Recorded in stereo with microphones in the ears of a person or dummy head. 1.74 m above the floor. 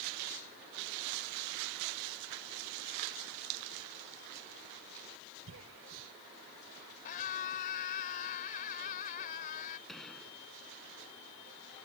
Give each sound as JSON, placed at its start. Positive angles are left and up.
{"t": 5.5, "sound": "a cough", "side_deg": -75}
{"t": 7.0, "sound": "a scream", "side_deg": 40}
{"t": 9.9, "sound": "a gunshot", "side_deg": -5}